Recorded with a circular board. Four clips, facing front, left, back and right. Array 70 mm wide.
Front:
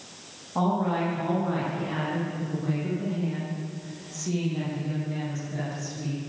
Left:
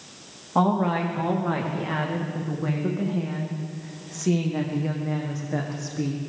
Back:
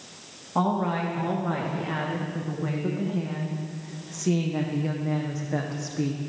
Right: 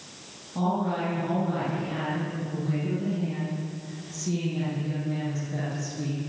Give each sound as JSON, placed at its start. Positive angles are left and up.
{"t": 0.6, "sound": "a woman speaking", "azimuth_deg": 105, "distance_m": 9.5}